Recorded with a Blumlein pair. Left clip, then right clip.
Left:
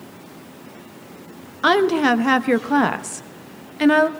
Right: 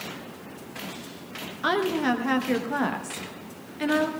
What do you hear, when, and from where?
1.6 s a woman speaking: 65° left, 0.9 m